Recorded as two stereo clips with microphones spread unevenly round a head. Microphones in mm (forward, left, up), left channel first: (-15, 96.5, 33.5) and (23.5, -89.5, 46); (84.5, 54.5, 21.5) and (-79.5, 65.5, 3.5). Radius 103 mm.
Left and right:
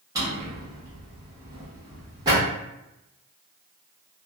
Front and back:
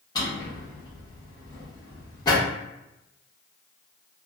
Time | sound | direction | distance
0.1 | a drawer | 30° right | 1.1 m